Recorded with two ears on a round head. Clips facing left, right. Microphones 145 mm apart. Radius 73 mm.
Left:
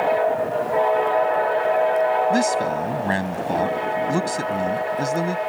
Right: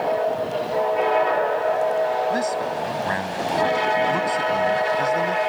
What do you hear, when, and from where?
2.3 s a man speaking: 30° left (ahead or behind)